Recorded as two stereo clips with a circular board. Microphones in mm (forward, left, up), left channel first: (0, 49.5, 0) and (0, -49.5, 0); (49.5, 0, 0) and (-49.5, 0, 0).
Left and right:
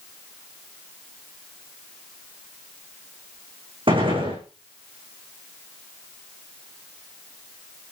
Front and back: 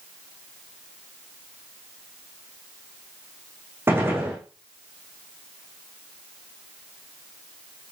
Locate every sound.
3.9 s a gunshot: 115° right, 7 m